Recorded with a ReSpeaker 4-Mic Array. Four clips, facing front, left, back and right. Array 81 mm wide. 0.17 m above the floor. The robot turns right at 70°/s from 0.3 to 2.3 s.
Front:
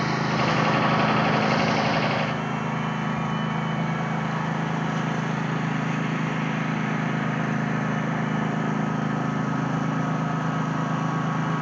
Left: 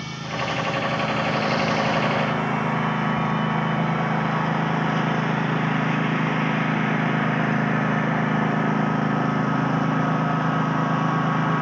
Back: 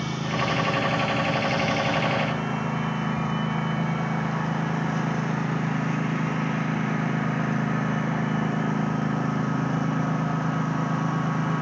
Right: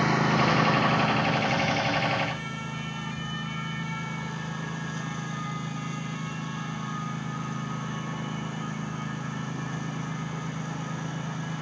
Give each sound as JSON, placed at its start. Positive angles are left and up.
{"t": 0.0, "sound": "a lawn mower", "azimuth_deg": -55}